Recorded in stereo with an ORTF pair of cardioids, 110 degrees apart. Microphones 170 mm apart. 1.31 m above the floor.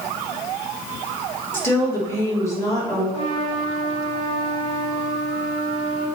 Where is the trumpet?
45° left, 2.5 m.